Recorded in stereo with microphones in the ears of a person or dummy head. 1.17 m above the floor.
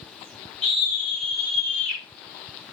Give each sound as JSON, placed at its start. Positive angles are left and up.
{"t": 0.6, "sound": "a scream", "side_deg": 25, "distance_m": 6.5}